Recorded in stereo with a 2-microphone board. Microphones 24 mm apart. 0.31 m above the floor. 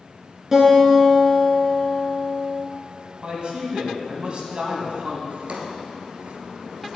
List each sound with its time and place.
0.5 s a guitar: 15° right (ahead or behind), 2.5 m
3.2 s a man speaking: 45° right (ahead or behind), 1.8 m
5.3 s a drawer: 60° right (ahead or behind), 1.5 m